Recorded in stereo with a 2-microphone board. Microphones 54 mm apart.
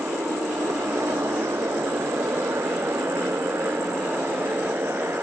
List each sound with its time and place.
0.0 s a motorcycle: 70° right (ahead or behind); by 5.2 s 45° right (ahead or behind)